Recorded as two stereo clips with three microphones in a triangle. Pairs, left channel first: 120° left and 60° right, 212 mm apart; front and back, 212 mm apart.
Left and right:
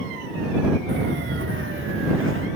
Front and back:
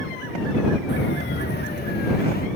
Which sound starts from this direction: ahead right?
Footsteps, at 0.9 s.